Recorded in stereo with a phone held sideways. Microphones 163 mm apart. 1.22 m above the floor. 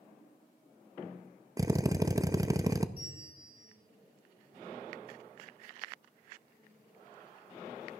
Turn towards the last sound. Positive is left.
turn(degrees=-75)  # may be behind; listen again after turning